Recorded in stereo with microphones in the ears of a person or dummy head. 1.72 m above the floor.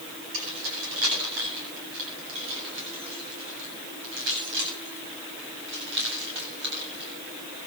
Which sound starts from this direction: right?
Keys jangling, at 0.3 s.